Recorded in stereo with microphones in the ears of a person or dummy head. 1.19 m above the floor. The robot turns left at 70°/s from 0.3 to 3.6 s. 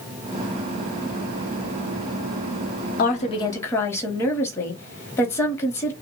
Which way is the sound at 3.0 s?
60° left.